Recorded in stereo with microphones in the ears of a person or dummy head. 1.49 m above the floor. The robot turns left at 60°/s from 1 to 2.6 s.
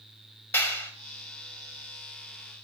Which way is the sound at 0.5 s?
10° left (ahead or behind).